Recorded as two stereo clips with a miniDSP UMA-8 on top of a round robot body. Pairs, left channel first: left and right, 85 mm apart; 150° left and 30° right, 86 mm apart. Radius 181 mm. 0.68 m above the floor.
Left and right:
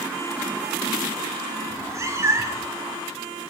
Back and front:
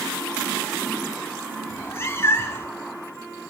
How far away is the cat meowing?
About 1.6 m.